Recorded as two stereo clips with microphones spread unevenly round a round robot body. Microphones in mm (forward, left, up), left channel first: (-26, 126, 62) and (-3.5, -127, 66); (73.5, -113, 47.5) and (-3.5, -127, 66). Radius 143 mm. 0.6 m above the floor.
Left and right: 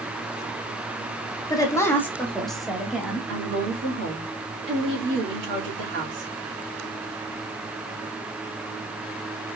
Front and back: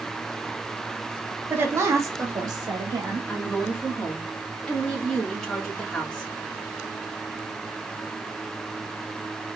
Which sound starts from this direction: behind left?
A woman speaking, at 1.5 s.